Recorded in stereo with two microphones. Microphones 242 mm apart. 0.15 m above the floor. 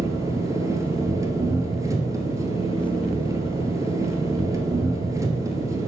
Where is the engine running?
15° right (ahead or behind), 1.4 m.